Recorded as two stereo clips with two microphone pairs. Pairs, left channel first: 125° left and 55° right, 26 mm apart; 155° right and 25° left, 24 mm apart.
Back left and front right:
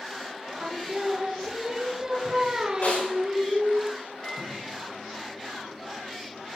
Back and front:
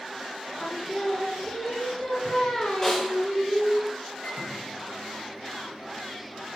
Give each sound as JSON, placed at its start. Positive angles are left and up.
{"t": 0.6, "sound": "singing", "azimuth_deg": -110, "distance_m": 1.7}
{"t": 2.8, "sound": "a snare drum", "azimuth_deg": 135, "distance_m": 8.5}
{"t": 4.2, "sound": "a microwave", "azimuth_deg": 170, "distance_m": 6.5}